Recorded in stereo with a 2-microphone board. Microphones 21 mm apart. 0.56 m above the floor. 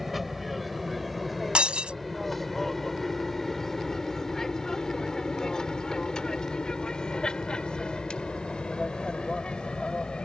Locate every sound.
0.0 s an aircraft: centre (ahead or behind); by 10.3 s 60° left (ahead or behind)
1.6 s breaking glass: 80° right